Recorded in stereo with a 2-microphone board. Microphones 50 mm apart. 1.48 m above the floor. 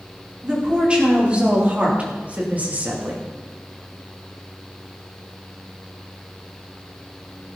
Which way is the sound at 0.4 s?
20° right (ahead or behind).